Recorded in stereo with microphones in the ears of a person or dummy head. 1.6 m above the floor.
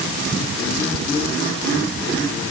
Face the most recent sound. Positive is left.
No sound to turn to.